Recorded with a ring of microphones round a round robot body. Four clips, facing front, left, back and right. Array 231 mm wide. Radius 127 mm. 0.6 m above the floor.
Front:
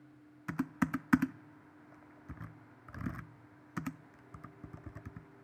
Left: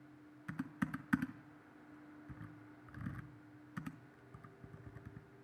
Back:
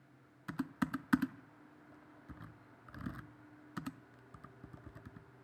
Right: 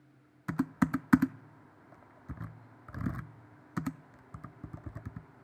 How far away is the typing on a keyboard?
About 0.5 m.